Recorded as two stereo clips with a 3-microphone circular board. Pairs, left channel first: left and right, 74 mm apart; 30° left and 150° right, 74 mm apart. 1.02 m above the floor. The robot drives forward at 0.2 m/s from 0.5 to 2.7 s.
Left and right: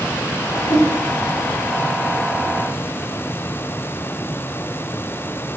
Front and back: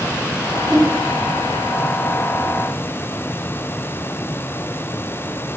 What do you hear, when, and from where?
0.7 s a whoosh: 125° left, 0.8 m; by 0.9 s 130° left, 0.8 m